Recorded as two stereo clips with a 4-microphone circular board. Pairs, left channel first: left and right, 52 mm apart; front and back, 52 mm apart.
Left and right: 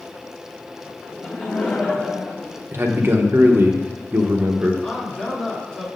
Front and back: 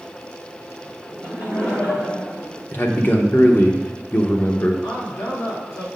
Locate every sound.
1.1 s laughter: 20° left, 1.6 m; by 2.6 s 15° left, 0.9 m
2.7 s a man speaking: 50° right, 0.9 m
4.8 s a man speaking: 15° left, 2.5 m